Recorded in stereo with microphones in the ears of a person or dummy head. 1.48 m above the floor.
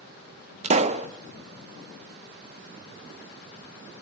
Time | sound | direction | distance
0.6 | a pop | 35° right (ahead or behind) | 0.5 m